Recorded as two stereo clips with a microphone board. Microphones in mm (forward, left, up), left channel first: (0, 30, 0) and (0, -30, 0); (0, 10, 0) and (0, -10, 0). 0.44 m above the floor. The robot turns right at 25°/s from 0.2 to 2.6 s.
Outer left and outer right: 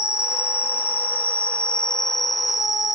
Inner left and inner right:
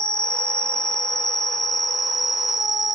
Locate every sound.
0.0 s an insect: 125° left, 0.7 m; by 3.0 s 175° right, 0.7 m